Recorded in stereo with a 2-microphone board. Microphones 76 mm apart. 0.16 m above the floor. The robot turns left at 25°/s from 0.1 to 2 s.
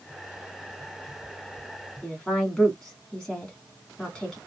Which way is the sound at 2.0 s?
5° left (ahead or behind).